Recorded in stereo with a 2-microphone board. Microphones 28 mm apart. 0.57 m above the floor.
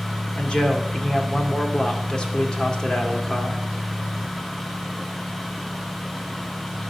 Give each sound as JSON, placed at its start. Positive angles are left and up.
{"t": 0.3, "sound": "a man speaking", "side_deg": 30, "distance_m": 1.7}